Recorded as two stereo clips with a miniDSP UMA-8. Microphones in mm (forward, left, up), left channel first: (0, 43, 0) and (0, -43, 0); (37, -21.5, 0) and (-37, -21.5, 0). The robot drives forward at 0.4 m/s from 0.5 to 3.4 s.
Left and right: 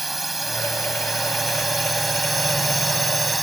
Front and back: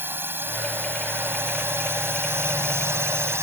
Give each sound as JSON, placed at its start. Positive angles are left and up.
{"t": 0.0, "sound": "a drone", "azimuth_deg": 180}